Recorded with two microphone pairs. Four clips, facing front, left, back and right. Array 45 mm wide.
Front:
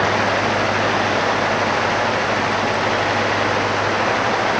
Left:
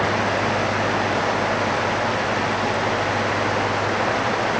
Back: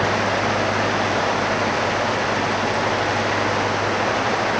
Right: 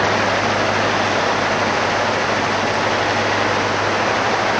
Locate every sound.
Only background noise.